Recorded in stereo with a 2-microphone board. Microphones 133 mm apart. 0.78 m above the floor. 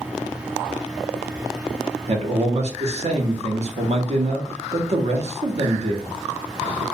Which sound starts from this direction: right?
A man speaking, at 2.1 s.